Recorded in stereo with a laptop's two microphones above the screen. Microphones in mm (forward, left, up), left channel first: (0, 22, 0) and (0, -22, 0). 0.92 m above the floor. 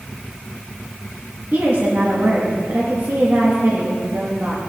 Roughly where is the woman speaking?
Right.